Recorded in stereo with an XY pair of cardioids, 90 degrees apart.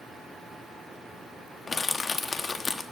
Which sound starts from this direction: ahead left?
Crushing, at 1.7 s.